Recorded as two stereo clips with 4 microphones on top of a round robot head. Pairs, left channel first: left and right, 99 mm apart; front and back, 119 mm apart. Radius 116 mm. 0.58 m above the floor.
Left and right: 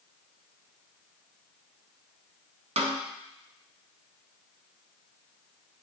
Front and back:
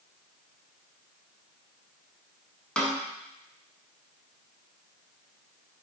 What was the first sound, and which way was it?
A snare drum, 85° right.